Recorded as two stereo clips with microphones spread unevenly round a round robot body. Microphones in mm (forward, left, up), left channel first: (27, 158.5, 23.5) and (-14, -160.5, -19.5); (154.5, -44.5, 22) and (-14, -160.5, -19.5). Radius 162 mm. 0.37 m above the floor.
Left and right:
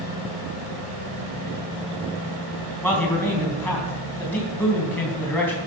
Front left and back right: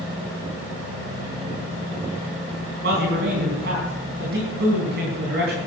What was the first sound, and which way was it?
A man speaking, 170° left.